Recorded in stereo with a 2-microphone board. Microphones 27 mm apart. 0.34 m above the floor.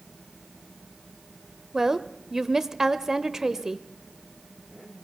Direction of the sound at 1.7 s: 15° right (ahead or behind).